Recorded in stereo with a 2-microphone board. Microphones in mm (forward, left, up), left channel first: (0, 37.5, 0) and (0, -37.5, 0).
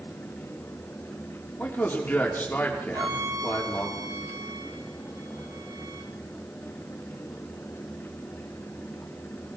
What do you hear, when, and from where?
1.6 s a man speaking: 25° left (ahead or behind), 3.5 m
2.9 s a violin: 60° right (ahead or behind), 3 m